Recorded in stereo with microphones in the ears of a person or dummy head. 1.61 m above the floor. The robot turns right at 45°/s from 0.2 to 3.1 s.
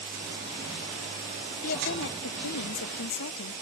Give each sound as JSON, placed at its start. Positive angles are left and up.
{"t": 1.6, "sound": "a woman speaking", "azimuth_deg": 45}